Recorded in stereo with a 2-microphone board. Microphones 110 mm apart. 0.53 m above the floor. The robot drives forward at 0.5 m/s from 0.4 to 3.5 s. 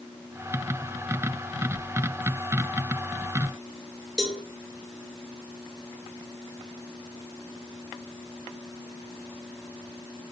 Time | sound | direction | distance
4.2 | a cowbell | centre (ahead or behind) | 2 m